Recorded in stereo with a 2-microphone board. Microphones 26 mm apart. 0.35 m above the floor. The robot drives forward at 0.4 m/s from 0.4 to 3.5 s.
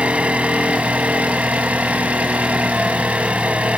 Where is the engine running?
60° right (ahead or behind), 1.8 m.